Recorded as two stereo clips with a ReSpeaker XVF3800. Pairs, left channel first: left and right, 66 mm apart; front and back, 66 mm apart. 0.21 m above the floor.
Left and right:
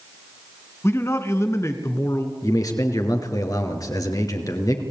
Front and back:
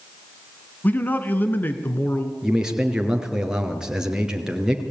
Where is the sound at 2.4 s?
100° left, 4 m.